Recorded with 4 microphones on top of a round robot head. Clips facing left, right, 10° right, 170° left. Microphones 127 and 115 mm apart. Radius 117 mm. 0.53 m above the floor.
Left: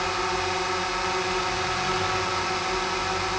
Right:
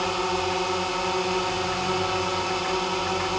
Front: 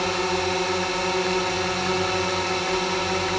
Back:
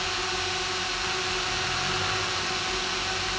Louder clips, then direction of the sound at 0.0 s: Right 2 dB, front 8 dB; 20° right.